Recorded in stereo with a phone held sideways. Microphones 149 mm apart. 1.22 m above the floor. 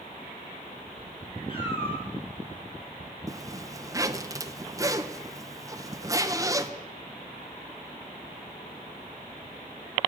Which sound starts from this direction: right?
A zipper, at 3.3 s.